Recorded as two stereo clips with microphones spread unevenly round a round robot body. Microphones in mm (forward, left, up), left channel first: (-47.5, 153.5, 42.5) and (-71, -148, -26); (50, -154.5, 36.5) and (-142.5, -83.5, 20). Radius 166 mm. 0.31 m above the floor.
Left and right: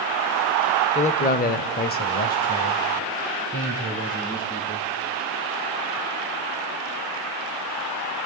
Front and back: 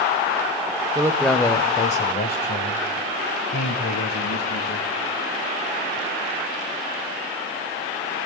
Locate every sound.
0.9 s a man speaking: 155° left, 0.9 m; by 4.9 s 10° left, 3.5 m